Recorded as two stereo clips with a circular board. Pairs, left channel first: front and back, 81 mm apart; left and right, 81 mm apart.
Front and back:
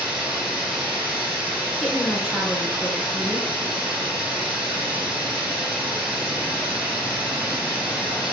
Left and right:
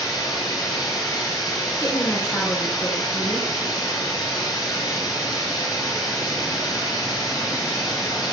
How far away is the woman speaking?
About 1.2 m.